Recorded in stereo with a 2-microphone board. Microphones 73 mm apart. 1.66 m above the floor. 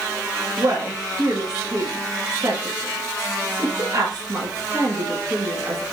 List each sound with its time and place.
0.6 s a woman speaking: 50° right (ahead or behind), 2.5 m